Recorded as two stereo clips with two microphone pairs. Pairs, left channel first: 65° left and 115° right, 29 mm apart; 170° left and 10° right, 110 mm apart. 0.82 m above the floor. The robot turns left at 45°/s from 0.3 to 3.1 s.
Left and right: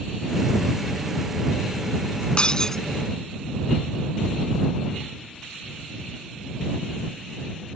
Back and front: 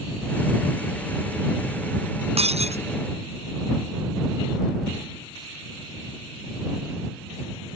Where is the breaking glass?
10° left; by 2.8 s 10° right.